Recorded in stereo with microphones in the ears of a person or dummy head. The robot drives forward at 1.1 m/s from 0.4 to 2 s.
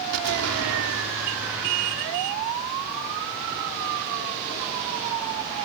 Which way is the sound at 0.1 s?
85° right.